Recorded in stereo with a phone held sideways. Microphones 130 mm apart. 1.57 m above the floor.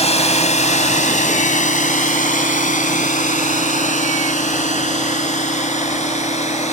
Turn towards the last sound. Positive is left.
turn(degrees=65)  # may be behind; listen again after turning